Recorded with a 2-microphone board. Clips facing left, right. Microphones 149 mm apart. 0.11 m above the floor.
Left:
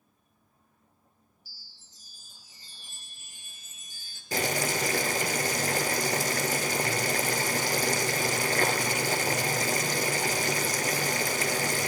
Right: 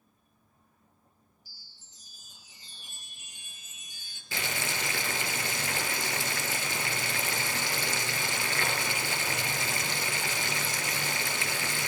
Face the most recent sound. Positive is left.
turn(degrees=45)  # may be behind; listen again after turning